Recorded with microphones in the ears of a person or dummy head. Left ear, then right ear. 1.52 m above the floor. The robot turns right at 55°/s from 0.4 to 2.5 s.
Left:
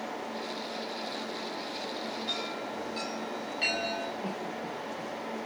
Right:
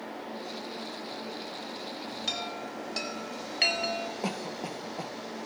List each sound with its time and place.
2.3 s a chime: 65° right (ahead or behind), 4 m; by 4.1 s 50° right (ahead or behind), 4 m
4.2 s a cough: 70° right (ahead or behind), 1.0 m